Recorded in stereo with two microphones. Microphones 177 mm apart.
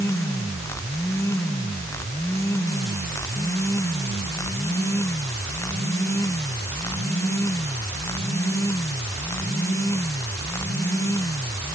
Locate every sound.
Only background noise.